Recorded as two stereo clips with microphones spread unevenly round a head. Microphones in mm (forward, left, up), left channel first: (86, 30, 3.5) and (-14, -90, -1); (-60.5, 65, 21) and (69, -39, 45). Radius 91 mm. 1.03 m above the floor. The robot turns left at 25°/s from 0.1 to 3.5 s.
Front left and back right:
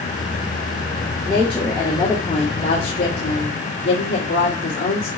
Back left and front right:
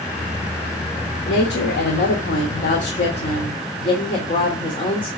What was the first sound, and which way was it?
A woman speaking, 140° left.